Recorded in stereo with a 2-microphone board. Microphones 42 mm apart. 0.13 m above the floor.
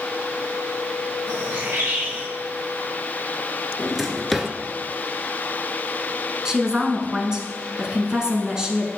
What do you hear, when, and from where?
1.3 s a bird: 70° right (ahead or behind), 2.5 m
3.8 s a drawer: centre (ahead or behind), 0.8 m
6.5 s a woman speaking: 20° right (ahead or behind), 1.0 m